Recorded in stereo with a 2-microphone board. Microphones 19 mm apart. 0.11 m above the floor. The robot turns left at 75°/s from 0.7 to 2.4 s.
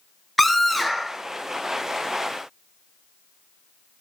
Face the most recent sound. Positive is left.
turn(degrees=-125)